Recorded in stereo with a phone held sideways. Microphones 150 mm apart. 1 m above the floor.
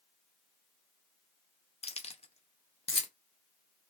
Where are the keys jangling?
40° left (ahead or behind), 0.5 m.